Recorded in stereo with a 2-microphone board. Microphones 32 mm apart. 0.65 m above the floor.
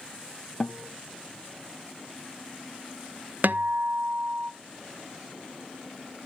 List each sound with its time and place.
0.6 s a guitar: 30° left (ahead or behind), 0.6 m
3.4 s a guitar: 70° right (ahead or behind), 0.7 m